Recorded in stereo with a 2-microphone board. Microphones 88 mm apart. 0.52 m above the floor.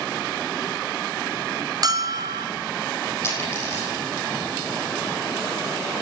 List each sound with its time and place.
1.8 s a bell: 45° right (ahead or behind), 1.8 m
3.2 s a dropped coin: 30° left (ahead or behind), 7.5 m